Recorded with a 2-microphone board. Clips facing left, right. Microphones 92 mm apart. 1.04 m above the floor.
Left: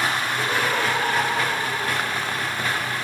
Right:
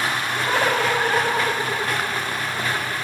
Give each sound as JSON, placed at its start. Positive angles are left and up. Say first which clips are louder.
{"t": 0.3, "sound": "laughter", "louder": "right 2 dB", "side_deg": -60, "distance_m": 6.0}